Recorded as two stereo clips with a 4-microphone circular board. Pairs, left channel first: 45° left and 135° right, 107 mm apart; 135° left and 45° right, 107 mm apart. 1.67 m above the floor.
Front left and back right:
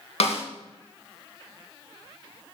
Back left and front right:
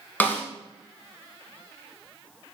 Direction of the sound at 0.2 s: 60° left.